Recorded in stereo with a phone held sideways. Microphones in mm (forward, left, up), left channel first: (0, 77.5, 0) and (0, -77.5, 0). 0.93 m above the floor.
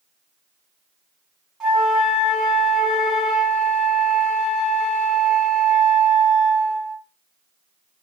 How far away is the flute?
About 1.5 m.